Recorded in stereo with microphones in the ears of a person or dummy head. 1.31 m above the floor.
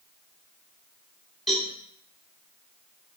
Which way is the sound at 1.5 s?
Centre (ahead or behind).